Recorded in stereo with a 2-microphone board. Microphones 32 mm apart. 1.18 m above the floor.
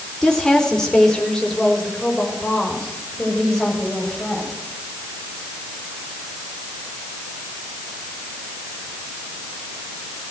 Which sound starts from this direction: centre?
A woman speaking, at 0.2 s.